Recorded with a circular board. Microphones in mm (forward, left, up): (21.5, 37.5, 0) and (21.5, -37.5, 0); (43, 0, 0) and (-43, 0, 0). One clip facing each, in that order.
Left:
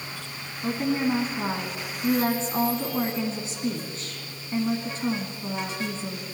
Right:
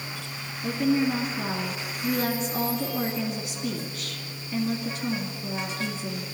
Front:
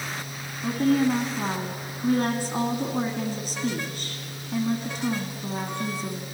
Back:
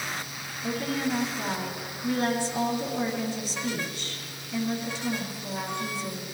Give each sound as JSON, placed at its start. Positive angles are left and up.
{"t": 0.6, "sound": "a woman speaking", "azimuth_deg": 35, "distance_m": 2.0}